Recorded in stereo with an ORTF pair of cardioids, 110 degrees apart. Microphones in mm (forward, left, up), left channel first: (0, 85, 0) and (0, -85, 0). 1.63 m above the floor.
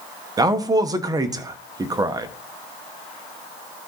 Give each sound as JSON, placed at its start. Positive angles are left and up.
{"t": 0.4, "sound": "a man speaking", "azimuth_deg": -20, "distance_m": 1.2}